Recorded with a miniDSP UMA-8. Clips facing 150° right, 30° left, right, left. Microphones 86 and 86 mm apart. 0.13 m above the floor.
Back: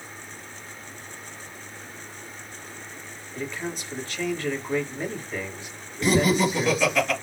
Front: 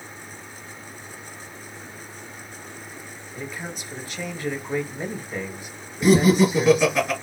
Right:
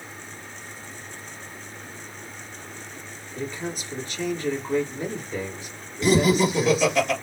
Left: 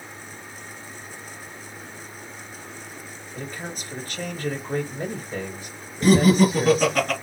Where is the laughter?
100° left, 2.5 m.